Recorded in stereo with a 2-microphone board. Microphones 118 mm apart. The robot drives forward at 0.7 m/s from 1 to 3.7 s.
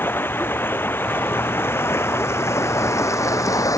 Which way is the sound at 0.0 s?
15° left (ahead or behind).